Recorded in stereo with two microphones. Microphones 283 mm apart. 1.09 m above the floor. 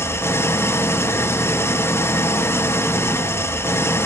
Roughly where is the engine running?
Centre.